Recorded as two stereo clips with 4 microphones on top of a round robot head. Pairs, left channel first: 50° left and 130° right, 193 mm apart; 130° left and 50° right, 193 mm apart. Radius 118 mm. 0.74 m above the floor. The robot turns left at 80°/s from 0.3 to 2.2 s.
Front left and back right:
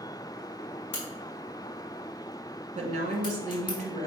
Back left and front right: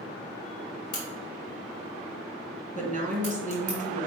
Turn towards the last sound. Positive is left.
turn(degrees=-80)